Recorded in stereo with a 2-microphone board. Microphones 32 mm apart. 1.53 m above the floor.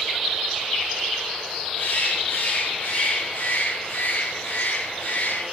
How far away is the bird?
About 7 m.